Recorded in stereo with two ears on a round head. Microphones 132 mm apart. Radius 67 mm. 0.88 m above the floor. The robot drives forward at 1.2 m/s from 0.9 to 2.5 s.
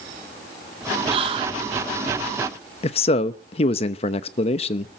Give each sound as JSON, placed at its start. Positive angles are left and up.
{"t": 1.1, "sound": "whispering", "side_deg": -35, "distance_m": 0.9}
{"t": 2.8, "sound": "a man speaking", "side_deg": 40, "distance_m": 0.8}